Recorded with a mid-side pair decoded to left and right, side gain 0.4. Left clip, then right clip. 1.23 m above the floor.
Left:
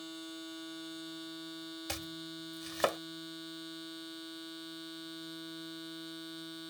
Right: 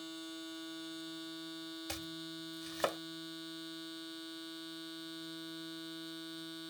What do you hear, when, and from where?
0.0 s a machine running: 5° left
1.9 s chopping: 30° left